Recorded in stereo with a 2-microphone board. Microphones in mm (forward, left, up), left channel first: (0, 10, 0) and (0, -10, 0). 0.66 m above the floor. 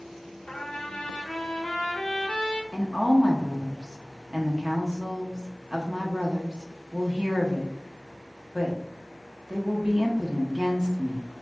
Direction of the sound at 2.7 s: 40° right (ahead or behind).